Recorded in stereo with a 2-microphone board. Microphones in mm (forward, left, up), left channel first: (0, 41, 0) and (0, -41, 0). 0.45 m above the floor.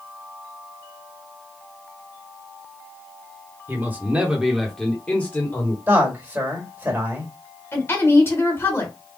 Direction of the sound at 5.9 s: 25° right (ahead or behind).